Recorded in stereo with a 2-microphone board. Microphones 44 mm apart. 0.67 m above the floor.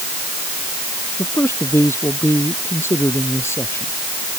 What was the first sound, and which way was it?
A man speaking, 70° left (ahead or behind).